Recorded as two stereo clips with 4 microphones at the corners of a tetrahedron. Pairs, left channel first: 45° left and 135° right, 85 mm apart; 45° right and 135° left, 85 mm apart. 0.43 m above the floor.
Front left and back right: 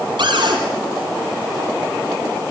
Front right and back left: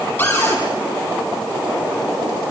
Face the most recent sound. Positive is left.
turn(degrees=-115)